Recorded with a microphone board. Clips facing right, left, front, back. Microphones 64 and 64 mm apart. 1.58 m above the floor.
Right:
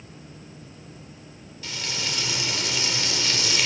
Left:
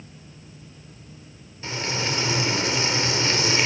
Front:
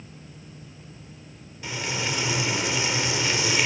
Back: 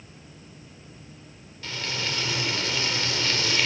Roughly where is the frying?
Ahead left.